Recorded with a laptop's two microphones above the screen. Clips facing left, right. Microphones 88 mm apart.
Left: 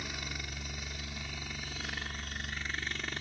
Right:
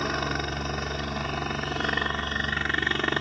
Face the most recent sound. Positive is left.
turn(degrees=-65)  # may be behind; listen again after turning